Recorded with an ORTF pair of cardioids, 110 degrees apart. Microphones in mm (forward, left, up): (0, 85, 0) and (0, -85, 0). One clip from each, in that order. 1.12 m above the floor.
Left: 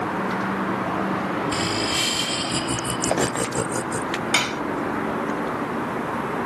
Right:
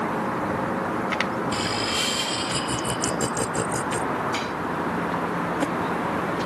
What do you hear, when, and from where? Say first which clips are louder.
1.5 s laughter: left 2 dB; 20° left; by 4.0 s 10° left
4.3 s dishes clattering: left 6 dB; 65° left